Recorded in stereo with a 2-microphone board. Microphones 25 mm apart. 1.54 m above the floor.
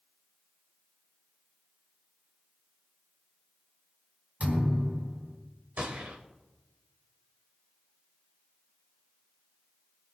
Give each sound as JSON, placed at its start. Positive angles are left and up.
{"t": 4.4, "sound": "a thud", "side_deg": -70, "distance_m": 4.0}
{"t": 5.8, "sound": "a gunshot", "side_deg": -75, "distance_m": 4.0}